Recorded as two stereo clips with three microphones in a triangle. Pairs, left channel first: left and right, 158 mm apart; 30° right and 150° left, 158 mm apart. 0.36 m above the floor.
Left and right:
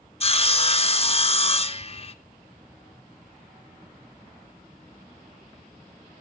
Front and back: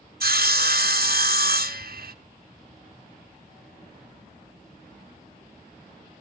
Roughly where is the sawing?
Behind left.